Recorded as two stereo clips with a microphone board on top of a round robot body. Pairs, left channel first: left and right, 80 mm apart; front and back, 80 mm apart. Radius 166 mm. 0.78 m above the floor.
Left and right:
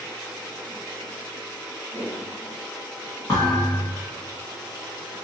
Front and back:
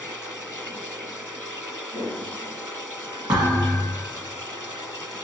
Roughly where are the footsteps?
Behind.